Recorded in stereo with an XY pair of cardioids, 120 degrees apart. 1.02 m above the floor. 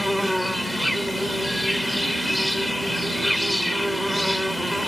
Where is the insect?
5° left.